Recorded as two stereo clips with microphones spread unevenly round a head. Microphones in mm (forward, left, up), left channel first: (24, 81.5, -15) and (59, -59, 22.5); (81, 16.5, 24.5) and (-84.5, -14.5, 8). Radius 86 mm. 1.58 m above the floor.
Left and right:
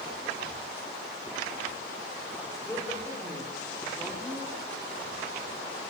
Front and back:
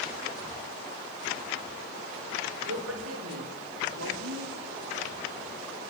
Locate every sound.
2.6 s a woman speaking: 175° right, 5 m; by 4.6 s 165° right, 3 m